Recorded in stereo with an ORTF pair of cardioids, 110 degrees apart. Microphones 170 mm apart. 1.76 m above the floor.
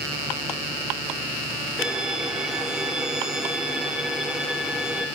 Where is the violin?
5° right, 1.2 m.